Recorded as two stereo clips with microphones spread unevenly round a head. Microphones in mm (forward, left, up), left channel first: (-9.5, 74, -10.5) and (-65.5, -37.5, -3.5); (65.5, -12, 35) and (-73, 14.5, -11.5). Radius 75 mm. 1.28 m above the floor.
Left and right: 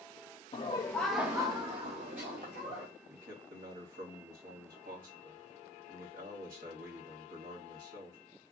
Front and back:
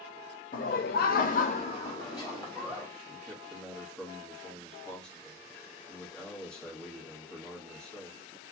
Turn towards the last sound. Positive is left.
turn(degrees=-95)